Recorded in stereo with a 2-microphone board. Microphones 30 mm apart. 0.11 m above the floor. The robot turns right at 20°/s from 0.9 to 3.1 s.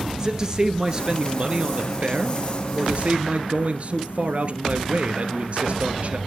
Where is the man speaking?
150° right, 1.6 m; by 6.2 s 105° right, 1.6 m.